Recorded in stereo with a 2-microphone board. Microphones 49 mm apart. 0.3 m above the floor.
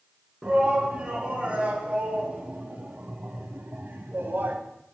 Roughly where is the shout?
Right.